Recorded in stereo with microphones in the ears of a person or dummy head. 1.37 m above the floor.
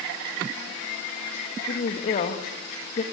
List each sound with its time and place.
1.7 s a woman speaking: 40° left (ahead or behind), 1.8 m